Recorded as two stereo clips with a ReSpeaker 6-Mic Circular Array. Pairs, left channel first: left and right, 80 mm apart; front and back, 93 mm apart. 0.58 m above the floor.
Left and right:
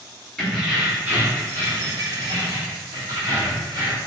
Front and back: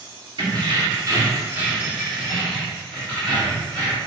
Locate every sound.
0.4 s keys jangling: straight behind, 1.0 m; by 4.0 s 65° right, 2 m